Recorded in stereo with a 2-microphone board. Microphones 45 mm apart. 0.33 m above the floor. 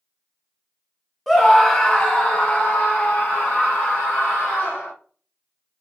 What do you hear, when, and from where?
1.3 s a scream: 5° left (ahead or behind), 1.3 m; by 4.9 s 40° left (ahead or behind), 4 m